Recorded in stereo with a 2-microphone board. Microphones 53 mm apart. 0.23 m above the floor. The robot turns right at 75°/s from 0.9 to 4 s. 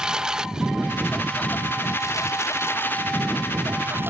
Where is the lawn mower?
15° right (ahead or behind); by 4.1 s 45° right (ahead or behind).